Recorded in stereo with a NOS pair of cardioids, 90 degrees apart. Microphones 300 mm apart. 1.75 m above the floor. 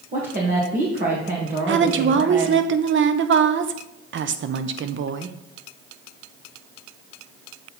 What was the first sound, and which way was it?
A woman speaking, 30° right.